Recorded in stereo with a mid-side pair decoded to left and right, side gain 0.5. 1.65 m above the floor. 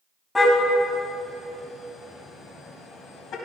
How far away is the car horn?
About 4 m.